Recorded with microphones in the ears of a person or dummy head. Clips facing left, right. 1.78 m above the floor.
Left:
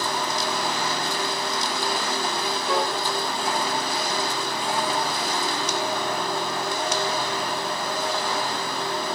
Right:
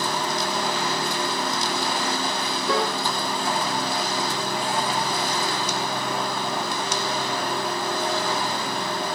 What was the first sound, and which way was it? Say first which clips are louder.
A piano: right 1 dB; 65° right (ahead or behind).